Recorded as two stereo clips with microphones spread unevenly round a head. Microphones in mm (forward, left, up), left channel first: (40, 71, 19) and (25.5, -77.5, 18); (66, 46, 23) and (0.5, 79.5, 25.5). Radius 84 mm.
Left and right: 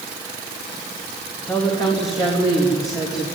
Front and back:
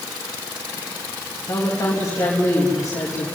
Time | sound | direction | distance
1.4 | a woman speaking | 20° left | 3.5 m